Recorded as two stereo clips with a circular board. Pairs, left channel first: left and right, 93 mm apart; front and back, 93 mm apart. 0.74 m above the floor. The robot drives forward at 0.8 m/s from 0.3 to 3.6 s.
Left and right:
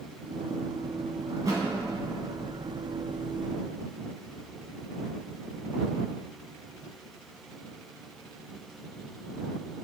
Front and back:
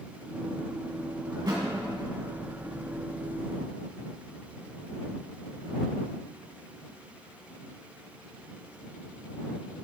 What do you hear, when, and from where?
1.3 s a thud: 140° right, 2 m